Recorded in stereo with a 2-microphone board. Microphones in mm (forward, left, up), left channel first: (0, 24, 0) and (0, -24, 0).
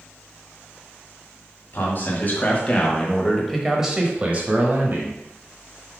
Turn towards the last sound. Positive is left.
turn(degrees=-50)  # may be behind; listen again after turning